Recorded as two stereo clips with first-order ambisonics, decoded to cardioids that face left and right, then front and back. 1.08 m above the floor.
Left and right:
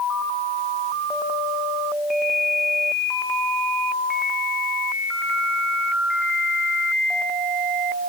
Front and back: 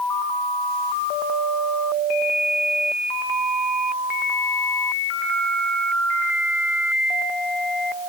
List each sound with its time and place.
Only background noise.